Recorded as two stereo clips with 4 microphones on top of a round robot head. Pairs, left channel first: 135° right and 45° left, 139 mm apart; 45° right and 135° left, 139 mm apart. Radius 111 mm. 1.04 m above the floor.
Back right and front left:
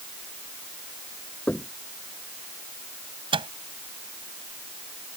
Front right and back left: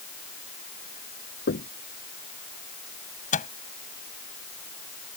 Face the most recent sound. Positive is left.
turn(degrees=-10)